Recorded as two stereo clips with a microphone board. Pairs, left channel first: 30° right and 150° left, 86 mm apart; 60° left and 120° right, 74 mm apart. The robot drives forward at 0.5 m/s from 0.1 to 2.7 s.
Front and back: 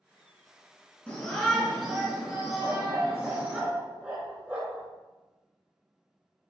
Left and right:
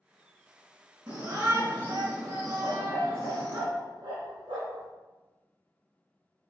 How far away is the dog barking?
About 1.5 m.